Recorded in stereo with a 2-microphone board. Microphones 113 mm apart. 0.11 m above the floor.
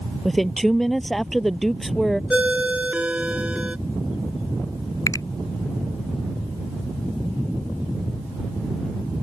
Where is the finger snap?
30° left (ahead or behind).